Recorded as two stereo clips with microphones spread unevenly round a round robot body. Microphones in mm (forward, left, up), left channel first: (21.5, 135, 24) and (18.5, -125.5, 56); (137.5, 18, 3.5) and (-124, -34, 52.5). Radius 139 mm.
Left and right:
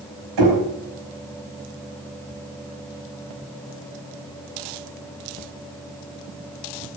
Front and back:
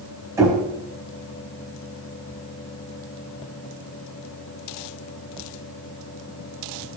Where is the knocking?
90° right, 5 m.